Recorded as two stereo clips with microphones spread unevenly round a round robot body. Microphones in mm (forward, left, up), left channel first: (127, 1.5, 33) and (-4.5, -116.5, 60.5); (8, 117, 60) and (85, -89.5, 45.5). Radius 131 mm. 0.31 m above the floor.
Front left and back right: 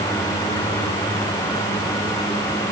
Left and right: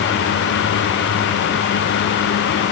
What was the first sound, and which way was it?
Only background noise.